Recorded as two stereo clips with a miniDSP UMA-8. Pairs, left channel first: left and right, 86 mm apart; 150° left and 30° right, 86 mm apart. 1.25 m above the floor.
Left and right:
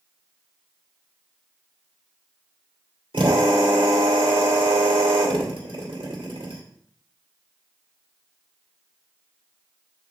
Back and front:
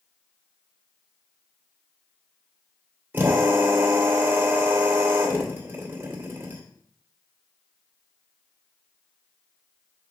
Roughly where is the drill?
Right.